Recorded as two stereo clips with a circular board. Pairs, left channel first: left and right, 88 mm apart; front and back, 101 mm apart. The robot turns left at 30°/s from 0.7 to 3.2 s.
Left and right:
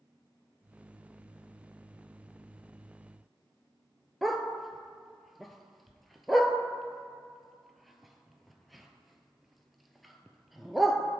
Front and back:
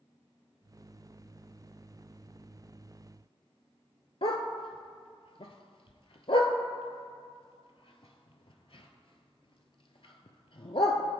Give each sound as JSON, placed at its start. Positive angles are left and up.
{"t": 4.2, "sound": "a dog barking", "azimuth_deg": 0, "distance_m": 0.5}